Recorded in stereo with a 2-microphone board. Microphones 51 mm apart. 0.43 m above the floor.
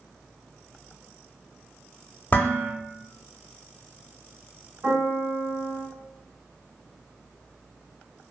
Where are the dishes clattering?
35° left (ahead or behind), 0.6 m.